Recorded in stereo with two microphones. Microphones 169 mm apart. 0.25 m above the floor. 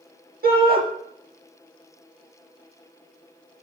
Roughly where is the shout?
Right.